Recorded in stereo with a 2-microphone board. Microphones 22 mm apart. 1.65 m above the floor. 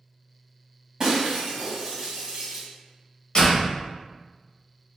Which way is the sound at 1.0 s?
30° right (ahead or behind).